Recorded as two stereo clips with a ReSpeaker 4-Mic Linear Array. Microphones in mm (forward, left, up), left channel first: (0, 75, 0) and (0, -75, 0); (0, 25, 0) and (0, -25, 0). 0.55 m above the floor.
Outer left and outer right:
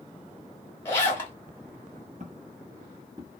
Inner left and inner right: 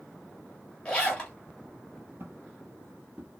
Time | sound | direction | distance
0.8 | a zipper | 15° left (ahead or behind) | 1.3 m
2.2 | footsteps | 55° right (ahead or behind) | 0.8 m